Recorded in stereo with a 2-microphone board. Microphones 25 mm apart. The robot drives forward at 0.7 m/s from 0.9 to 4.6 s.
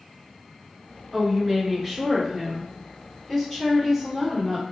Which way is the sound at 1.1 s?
5° right (ahead or behind).